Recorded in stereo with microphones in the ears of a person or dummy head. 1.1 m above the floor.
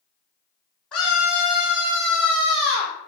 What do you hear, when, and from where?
0.9 s a scream: 5° left (ahead or behind), 0.7 m; by 2.9 s 55° right (ahead or behind), 1.3 m